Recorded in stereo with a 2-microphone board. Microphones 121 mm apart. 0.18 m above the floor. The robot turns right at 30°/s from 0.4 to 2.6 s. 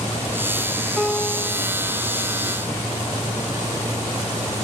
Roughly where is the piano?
Centre.